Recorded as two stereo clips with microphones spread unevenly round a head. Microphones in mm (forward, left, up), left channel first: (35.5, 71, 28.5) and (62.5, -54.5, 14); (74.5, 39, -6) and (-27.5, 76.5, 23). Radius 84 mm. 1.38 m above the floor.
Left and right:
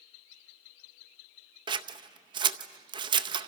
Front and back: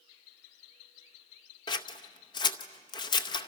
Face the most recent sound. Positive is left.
turn(degrees=-65)